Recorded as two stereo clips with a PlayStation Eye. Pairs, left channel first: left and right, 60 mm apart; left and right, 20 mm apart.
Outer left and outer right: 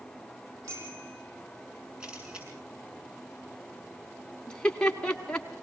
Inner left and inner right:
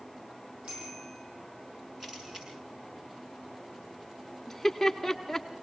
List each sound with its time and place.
0.6 s a bicycle bell: 65° right (ahead or behind), 6.5 m
2.0 s a camera shutter: 15° right (ahead or behind), 7 m
4.5 s laughter: 15° left (ahead or behind), 1.7 m